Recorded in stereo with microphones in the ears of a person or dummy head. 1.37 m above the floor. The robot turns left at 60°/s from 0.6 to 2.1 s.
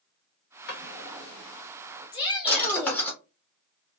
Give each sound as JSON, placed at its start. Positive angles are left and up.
{"t": 0.7, "sound": "a drawer", "side_deg": 65, "distance_m": 1.0}
{"t": 2.1, "sound": "a shout", "side_deg": 25, "distance_m": 1.0}